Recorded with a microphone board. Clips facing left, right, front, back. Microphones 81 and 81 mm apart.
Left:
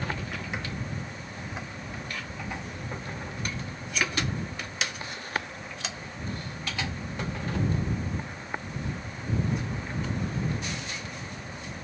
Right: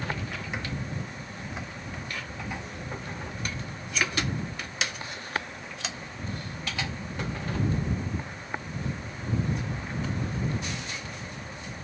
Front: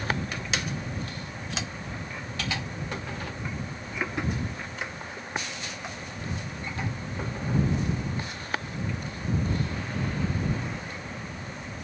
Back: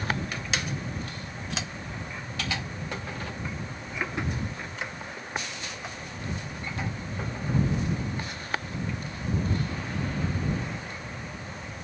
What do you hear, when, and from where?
Only background noise.